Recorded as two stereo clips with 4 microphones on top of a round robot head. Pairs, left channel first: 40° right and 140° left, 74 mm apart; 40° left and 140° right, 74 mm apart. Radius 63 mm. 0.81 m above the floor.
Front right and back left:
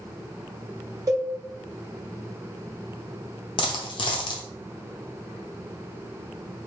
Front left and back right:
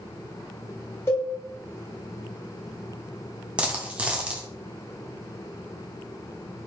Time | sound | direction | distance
1.1 | a cowbell | 95° left | 0.8 m
3.6 | a dropped coin | 65° right | 0.5 m